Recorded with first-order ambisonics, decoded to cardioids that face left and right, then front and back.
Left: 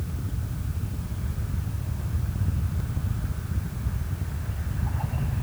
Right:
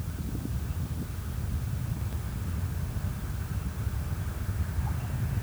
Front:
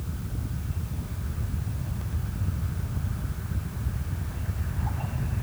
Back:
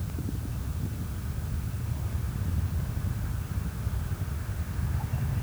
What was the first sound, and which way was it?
Only background noise.